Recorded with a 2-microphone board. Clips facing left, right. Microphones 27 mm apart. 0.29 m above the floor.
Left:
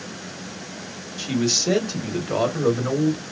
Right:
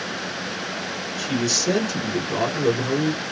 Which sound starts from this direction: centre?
A man speaking, at 1.2 s.